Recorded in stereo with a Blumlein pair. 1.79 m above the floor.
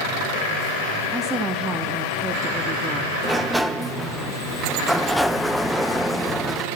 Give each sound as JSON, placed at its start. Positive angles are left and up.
{"t": 1.1, "sound": "a woman speaking", "azimuth_deg": -15, "distance_m": 0.9}
{"t": 3.2, "sound": "a sliding door", "azimuth_deg": 0, "distance_m": 0.6}